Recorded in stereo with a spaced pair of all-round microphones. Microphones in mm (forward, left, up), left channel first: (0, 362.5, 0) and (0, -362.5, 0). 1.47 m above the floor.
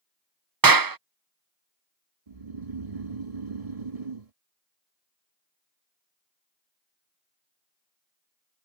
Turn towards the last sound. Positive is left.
turn(degrees=-55)  # may be behind; listen again after turning